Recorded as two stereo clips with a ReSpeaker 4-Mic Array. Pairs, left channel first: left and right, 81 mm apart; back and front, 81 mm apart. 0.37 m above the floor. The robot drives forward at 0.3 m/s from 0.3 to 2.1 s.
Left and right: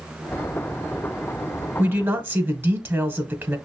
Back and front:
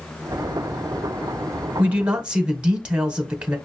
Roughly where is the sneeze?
No sneeze in this recording.